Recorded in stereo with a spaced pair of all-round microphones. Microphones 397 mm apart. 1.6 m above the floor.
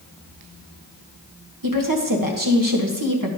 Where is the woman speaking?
55° right (ahead or behind), 1.5 m.